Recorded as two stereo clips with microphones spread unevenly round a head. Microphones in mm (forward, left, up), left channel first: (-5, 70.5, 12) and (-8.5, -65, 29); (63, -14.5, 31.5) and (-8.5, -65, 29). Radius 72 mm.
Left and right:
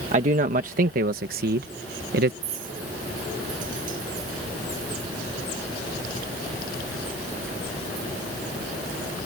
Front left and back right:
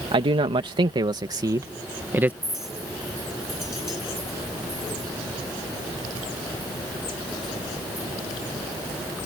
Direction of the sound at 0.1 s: 130° right.